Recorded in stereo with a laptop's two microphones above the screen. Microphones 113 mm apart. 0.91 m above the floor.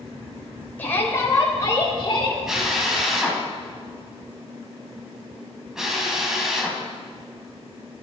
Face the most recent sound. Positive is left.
turn(degrees=-5)  # may be behind; listen again after turning